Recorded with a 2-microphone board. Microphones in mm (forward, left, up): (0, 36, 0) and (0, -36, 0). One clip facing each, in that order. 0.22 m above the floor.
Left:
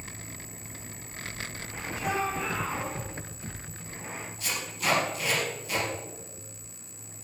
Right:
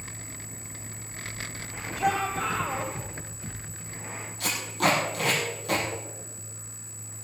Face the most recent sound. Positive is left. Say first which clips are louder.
# right 7 dB
turn(degrees=-70)  # may be behind; listen again after turning